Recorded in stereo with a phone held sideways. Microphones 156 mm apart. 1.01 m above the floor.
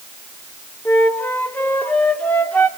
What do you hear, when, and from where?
0.8 s a flute: 10° left (ahead or behind), 2.5 m